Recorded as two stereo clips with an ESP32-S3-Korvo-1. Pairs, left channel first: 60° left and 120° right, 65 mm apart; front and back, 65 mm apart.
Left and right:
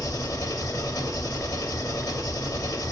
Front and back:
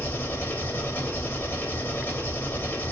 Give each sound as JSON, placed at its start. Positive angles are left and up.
{"t": 0.0, "sound": "an engine running", "azimuth_deg": 55, "distance_m": 2.0}